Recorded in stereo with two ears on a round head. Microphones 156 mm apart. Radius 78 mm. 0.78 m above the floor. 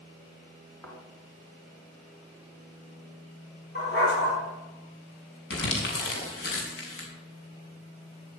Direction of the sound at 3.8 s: 55° left (ahead or behind).